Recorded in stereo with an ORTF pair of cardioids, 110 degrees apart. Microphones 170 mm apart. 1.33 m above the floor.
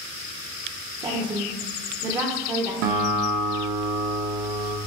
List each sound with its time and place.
1.0 s a woman speaking: 40° right, 0.7 m
2.8 s a guitar: 65° right, 0.8 m